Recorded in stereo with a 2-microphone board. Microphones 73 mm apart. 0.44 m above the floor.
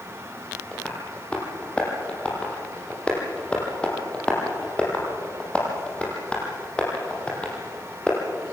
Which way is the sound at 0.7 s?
15° left (ahead or behind).